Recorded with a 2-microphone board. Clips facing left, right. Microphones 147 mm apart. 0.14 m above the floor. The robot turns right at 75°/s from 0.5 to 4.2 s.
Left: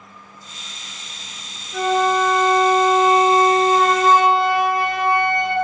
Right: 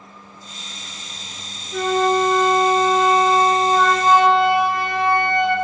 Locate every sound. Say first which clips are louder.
1.7 s a flute: even; 75° right, 2 m; by 5.5 s 115° left, 2 m